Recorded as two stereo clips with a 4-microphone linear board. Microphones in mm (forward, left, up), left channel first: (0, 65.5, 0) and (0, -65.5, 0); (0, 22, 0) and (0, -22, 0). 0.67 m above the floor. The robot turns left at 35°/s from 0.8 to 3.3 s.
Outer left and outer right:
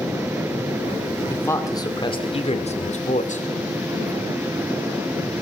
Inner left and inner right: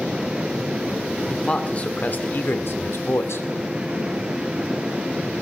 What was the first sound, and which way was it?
A man speaking, 165° left.